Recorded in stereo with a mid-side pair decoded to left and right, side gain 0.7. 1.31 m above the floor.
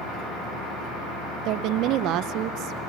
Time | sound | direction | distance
1.4 | a woman speaking | 60° right | 0.7 m